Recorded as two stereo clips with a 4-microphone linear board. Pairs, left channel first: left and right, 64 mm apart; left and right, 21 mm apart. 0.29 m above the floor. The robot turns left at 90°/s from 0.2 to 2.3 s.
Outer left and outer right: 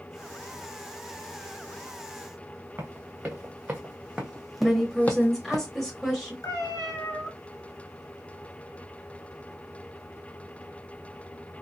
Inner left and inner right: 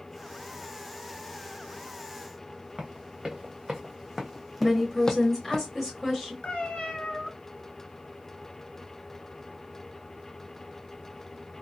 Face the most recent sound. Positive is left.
turn(degrees=60)  # may be behind; listen again after turning